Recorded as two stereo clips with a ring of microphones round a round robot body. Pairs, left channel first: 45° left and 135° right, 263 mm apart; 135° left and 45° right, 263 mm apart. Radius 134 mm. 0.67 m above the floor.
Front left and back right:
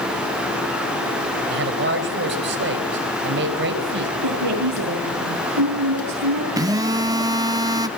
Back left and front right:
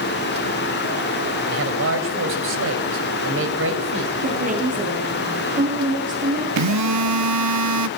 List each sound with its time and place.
1.5 s a man speaking: 85° right, 3.5 m
4.2 s a woman speaking: 105° right, 9 m
6.6 s a phone buzzing: 60° right, 0.8 m